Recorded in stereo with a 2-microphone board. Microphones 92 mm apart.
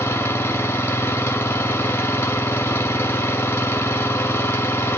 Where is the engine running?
25° left (ahead or behind), 1.2 m.